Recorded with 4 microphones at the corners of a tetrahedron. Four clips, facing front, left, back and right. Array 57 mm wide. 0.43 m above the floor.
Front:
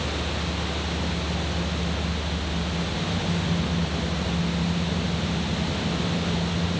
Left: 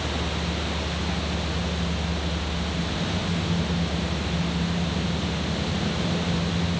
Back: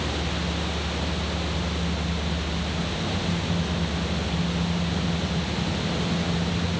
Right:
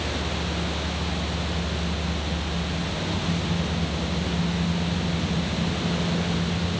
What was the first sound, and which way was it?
Only background noise.